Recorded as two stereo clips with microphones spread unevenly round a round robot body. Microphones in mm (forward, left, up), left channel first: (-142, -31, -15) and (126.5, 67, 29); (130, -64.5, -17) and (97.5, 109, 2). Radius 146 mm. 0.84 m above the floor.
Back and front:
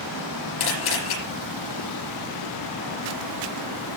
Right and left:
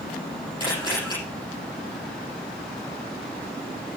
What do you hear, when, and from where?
0.6 s a camera shutter: 155° right, 9.5 m